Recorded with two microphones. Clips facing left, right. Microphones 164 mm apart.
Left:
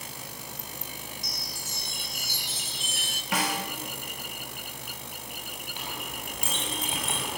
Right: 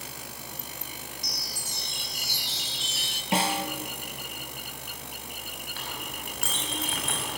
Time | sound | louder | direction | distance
1.2 | a chime | even | 50° left (ahead or behind) | 1.4 m
3.3 | a snare drum | right 3 dB | 30° right (ahead or behind) | 1.6 m
5.8 | a clink | left 1 dB | 15° left (ahead or behind) | 6 m